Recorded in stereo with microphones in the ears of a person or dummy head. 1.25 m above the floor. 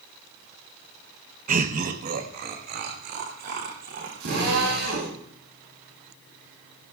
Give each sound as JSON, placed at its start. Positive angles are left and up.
{"t": 1.5, "sound": "laughter", "side_deg": -40, "distance_m": 0.9}
{"t": 4.2, "sound": "a drill", "side_deg": -65, "distance_m": 8.5}